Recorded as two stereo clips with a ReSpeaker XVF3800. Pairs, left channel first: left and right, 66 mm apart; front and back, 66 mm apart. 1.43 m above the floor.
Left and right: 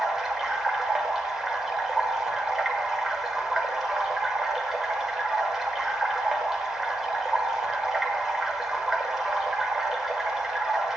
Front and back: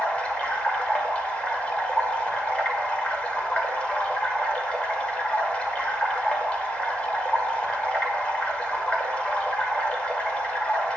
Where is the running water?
15° right, 1.1 m.